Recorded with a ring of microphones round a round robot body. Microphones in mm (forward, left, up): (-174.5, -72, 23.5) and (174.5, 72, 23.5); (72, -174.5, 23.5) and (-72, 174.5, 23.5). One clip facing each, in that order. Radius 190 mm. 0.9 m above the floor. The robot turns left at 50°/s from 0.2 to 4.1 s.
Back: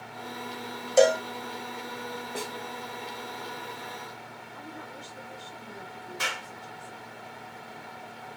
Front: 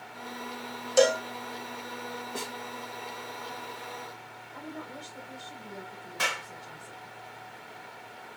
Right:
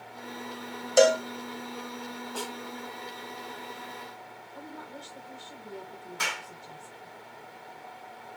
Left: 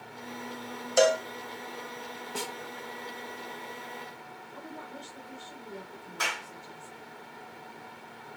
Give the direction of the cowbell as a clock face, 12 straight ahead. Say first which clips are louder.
Back 2 dB, right 3 dB; 2 o'clock.